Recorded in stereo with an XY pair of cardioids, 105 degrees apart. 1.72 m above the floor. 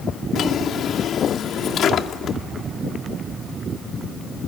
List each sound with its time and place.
0.3 s a drawer: 65° left, 3 m